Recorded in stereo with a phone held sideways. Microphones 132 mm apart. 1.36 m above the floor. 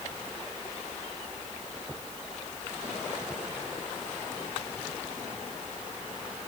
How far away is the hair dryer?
I don't hear a hair dryer.